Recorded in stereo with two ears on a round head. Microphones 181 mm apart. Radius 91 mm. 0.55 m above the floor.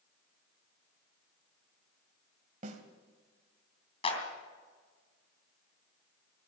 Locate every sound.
2.6 s a snare drum: 40° right (ahead or behind), 1.9 m
4.0 s a clap: 30° left (ahead or behind), 3 m